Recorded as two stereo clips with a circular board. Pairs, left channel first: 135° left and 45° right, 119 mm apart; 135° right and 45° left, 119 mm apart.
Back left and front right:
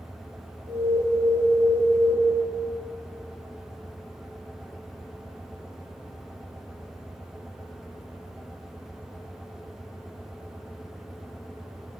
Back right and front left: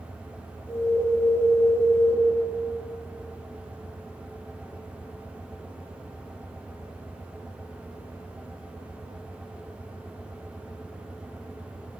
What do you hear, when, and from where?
0.7 s an alarm: 20° right, 1.7 m